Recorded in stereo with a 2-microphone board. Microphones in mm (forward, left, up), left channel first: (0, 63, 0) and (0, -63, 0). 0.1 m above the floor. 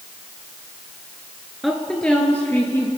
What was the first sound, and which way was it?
A woman speaking, centre (ahead or behind).